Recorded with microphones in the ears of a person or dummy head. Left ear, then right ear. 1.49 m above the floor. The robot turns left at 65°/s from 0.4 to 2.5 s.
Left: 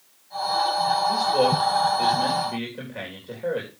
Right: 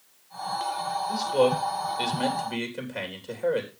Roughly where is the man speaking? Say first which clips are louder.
Left 3 dB; centre.